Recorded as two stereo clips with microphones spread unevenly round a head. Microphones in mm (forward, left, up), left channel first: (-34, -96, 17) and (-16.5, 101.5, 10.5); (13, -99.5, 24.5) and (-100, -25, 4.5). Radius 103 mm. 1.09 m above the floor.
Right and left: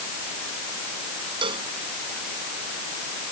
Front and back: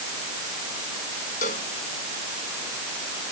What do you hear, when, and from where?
1.4 s a cowbell: 20° left